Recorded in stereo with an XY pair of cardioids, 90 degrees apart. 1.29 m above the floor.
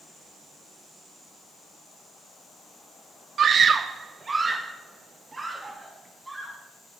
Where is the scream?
65° right, 0.7 m; by 6.6 s 20° right, 3.5 m.